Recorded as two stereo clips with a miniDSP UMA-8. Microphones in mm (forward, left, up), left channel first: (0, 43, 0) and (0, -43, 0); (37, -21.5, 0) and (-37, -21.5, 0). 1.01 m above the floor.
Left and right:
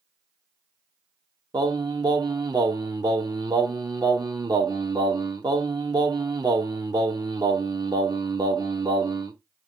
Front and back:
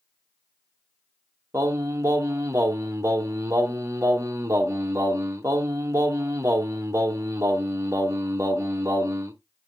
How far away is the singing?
About 1.0 m.